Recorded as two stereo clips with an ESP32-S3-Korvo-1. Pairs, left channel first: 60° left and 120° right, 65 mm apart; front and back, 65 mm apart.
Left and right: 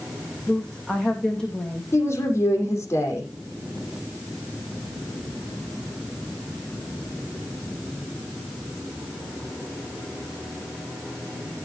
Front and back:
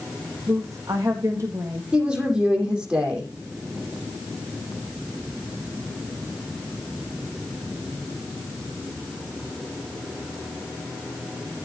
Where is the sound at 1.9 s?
110° left, 5.5 m.